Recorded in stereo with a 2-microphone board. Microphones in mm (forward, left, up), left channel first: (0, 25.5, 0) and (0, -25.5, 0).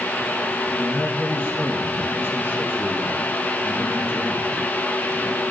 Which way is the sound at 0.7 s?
40° left (ahead or behind).